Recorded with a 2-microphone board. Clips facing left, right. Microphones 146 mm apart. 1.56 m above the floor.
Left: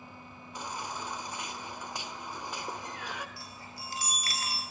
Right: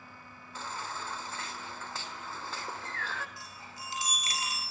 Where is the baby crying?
15° left (ahead or behind), 1.9 m.